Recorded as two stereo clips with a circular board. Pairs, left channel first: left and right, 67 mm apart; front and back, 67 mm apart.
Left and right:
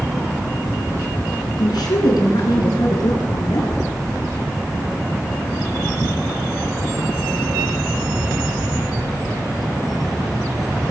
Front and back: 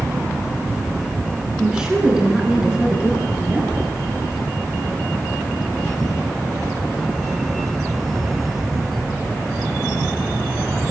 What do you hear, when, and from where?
1.6 s a woman speaking: 100° left, 8.5 m; by 3.9 s 110° left, 11 m